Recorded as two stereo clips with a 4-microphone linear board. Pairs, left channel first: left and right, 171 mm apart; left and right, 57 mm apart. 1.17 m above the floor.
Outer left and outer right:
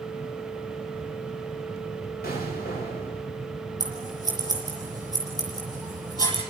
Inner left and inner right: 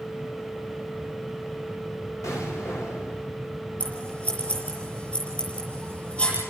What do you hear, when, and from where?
2.2 s an explosion: 65° left (ahead or behind), 7 m
3.8 s scissors: 25° left (ahead or behind), 7 m